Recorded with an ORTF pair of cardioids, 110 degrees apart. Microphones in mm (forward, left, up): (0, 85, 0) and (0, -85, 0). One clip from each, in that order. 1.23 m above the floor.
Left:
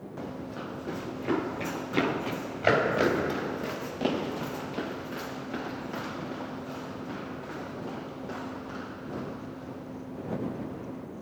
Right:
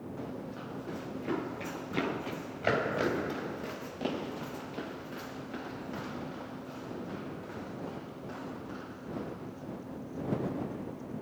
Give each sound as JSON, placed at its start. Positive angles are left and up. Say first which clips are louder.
{"t": 0.2, "sound": "running footsteps", "louder": "left 6 dB", "azimuth_deg": 35}